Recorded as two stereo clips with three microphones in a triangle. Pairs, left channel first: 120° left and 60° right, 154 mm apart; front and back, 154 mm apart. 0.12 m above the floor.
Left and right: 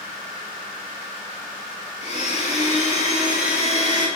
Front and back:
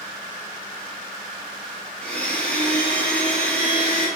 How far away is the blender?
About 1.2 m.